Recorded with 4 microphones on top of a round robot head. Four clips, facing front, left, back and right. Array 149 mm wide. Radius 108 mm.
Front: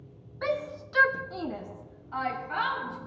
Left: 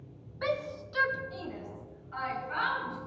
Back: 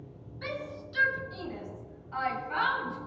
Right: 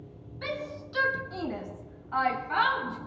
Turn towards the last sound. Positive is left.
turn(degrees=-80)